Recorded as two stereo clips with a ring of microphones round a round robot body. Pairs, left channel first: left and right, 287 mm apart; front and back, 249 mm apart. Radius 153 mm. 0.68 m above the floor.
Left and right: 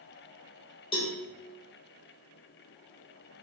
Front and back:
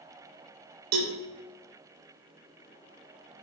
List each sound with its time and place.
0.9 s a cowbell: 165° left, 0.8 m